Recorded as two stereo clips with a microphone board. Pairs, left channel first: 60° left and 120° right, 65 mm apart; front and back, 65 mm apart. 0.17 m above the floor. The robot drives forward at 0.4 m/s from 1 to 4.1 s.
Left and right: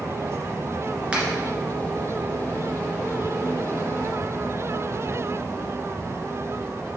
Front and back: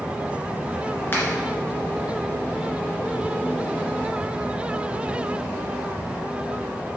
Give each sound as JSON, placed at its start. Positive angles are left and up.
{"t": 1.1, "sound": "a finger snap", "azimuth_deg": -50, "distance_m": 2.0}